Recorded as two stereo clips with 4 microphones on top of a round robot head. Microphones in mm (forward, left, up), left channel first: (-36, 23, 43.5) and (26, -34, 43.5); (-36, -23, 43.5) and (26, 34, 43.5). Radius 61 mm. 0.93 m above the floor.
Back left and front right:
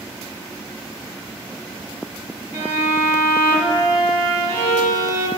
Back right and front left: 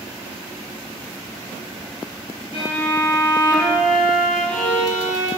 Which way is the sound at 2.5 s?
Straight ahead.